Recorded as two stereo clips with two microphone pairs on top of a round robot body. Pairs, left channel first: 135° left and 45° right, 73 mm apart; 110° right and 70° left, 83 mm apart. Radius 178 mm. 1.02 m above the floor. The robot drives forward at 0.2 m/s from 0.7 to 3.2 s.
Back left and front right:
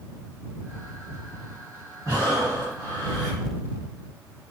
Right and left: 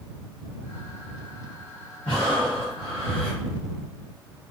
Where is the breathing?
85° right, 1.4 m; by 3.4 s 95° right, 1.4 m.